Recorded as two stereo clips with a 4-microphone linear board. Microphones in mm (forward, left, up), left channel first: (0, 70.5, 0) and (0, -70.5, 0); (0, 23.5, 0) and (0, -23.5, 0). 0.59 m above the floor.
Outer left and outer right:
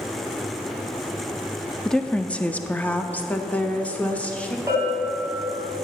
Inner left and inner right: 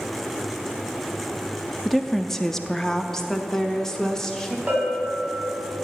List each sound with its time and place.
1.9 s a woman speaking: 5° left (ahead or behind), 0.6 m; by 4.6 s 10° left (ahead or behind), 1.5 m
4.7 s a bell: 25° right (ahead or behind), 3.5 m